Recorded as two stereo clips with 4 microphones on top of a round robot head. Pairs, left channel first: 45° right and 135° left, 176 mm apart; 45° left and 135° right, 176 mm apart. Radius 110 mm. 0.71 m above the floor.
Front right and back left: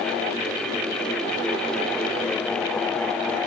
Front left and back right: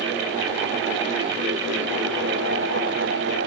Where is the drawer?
No drawer in this recording.